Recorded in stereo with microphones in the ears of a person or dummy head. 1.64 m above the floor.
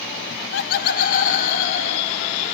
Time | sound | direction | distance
0.3 | laughter | 70° left (ahead or behind) | 0.9 m